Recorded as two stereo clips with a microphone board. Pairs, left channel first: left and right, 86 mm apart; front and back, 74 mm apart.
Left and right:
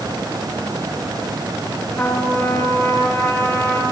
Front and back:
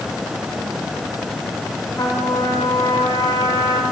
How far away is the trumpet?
About 4.5 m.